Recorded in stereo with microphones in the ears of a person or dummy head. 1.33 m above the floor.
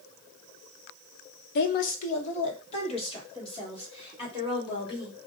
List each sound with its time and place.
1.6 s a woman speaking: 55° left (ahead or behind), 0.6 m; by 5.1 s 25° left (ahead or behind), 2.5 m